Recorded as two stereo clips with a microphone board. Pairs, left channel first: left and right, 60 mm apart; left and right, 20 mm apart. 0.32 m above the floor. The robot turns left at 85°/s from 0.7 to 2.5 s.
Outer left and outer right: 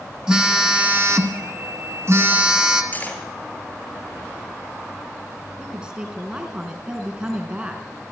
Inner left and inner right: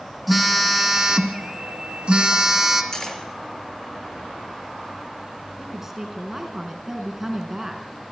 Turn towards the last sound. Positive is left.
turn(degrees=-15)  # may be behind; listen again after turning